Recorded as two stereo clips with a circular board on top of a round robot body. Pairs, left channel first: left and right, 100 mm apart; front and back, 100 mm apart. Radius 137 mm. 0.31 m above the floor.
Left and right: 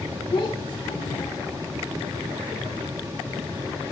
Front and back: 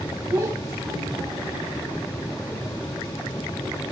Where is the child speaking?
125° left, 2.5 m.